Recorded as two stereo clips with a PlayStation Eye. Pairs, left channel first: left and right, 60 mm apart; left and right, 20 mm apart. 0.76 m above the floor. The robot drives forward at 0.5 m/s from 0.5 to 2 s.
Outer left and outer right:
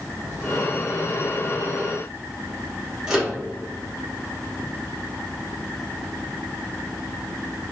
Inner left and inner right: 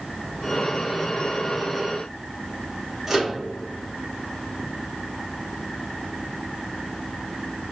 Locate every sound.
3.1 s a microwave: 10° right (ahead or behind), 1.5 m